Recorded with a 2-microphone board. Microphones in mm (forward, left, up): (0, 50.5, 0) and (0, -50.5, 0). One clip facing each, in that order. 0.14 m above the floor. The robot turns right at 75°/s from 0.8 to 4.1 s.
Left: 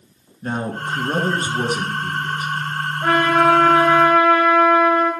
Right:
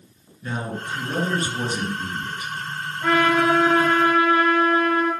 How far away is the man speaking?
About 2 m.